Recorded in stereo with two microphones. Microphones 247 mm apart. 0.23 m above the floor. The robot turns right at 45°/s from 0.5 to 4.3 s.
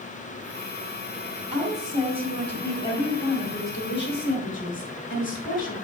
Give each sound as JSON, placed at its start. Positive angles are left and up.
{"t": 1.5, "sound": "a woman speaking", "azimuth_deg": -35, "distance_m": 1.6}